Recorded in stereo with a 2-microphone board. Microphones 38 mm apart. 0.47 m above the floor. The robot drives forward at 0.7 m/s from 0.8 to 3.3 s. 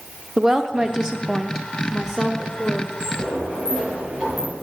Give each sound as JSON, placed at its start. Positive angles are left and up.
{"t": 0.4, "sound": "a woman speaking", "side_deg": -15, "distance_m": 0.7}
{"t": 3.0, "sound": "a sliding door", "side_deg": -45, "distance_m": 6.0}